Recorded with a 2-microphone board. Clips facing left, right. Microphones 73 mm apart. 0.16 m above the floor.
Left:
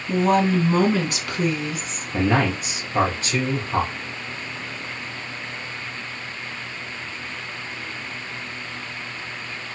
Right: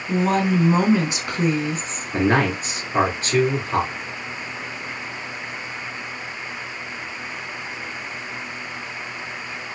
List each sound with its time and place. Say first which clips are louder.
0.1 s a woman speaking: left 1 dB; 5° left (ahead or behind), 1.1 m; by 2.1 s 40° right (ahead or behind), 1.3 m
2.1 s a man speaking: right 2 dB; 40° right (ahead or behind), 2.5 m